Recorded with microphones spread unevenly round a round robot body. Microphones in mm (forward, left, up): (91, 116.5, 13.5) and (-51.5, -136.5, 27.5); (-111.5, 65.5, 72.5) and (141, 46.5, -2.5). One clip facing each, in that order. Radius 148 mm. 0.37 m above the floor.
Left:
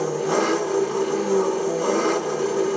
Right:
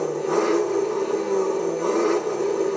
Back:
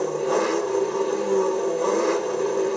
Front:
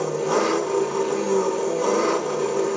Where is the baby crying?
No baby crying in this recording.